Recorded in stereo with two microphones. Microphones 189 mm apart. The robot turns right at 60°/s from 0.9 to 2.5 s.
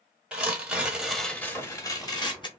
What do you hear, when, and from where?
0.3 s tearing paper: 5° right (ahead or behind), 1.2 m; by 2.5 s 25° left (ahead or behind), 1.2 m